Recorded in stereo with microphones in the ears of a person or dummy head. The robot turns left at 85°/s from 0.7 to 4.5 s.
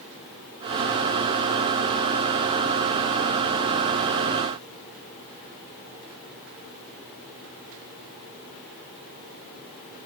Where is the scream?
No scream in this recording.